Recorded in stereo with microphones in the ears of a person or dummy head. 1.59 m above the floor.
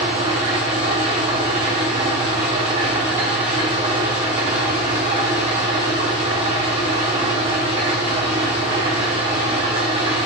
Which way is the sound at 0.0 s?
25° right (ahead or behind).